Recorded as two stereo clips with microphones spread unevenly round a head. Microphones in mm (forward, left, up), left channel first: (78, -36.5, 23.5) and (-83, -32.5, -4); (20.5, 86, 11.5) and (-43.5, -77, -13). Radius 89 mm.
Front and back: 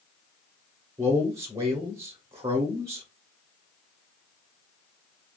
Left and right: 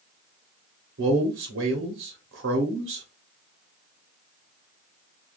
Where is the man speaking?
105° right, 0.8 m.